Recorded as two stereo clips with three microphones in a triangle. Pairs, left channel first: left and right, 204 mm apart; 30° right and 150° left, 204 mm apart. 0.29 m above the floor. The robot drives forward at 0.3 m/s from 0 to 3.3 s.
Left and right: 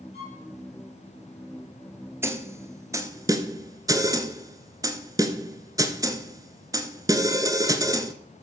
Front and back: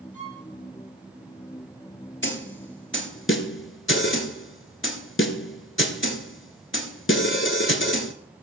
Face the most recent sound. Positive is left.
turn(degrees=-15)